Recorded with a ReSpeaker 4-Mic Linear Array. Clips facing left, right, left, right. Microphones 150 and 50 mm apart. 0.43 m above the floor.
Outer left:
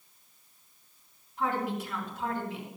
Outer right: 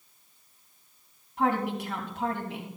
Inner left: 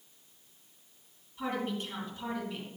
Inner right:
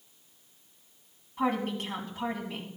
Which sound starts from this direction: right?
A woman speaking, at 1.4 s.